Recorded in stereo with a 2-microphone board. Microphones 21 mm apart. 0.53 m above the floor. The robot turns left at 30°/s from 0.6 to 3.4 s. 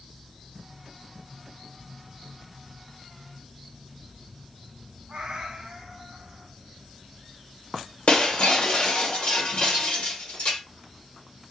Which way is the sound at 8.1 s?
70° left (ahead or behind).